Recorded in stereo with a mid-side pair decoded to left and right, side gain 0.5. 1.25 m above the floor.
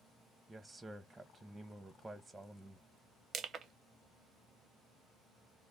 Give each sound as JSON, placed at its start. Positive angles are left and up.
{"t": 0.5, "sound": "a man speaking", "azimuth_deg": -15, "distance_m": 0.6}
{"t": 3.3, "sound": "crushing", "azimuth_deg": -50, "distance_m": 0.6}